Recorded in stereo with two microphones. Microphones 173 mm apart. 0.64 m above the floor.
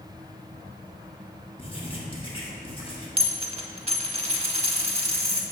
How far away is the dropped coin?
About 0.8 m.